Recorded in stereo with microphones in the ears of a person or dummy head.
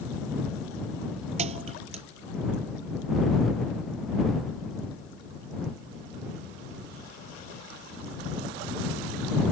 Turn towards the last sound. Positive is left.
turn(degrees=-40)  # may be behind; listen again after turning